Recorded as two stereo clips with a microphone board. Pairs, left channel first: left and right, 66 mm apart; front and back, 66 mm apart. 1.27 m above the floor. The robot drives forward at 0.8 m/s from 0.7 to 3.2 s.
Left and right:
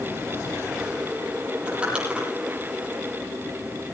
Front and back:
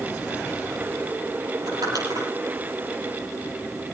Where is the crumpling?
165° right, 8.5 m.